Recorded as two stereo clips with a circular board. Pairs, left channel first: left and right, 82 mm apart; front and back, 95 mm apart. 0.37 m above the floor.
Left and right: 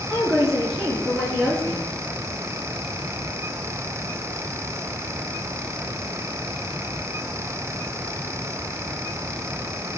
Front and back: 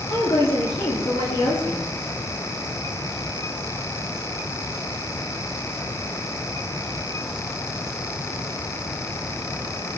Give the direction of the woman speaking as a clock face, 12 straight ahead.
12 o'clock.